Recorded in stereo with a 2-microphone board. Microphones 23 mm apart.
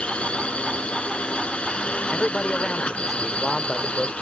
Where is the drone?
60° left (ahead or behind).